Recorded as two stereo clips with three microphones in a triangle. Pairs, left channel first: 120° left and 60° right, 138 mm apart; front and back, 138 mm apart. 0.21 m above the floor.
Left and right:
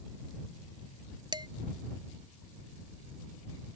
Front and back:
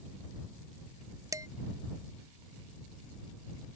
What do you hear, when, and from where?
1.3 s dishes clattering: 115° right